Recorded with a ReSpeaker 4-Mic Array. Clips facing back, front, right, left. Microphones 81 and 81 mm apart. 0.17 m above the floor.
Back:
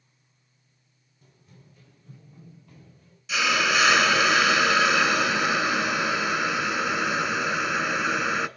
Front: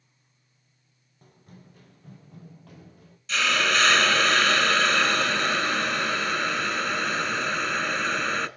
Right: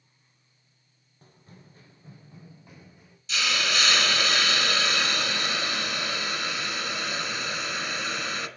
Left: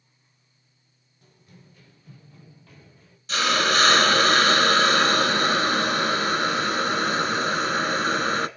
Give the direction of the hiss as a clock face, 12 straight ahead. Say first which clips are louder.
Back 1 dB, left 7 dB; 9 o'clock.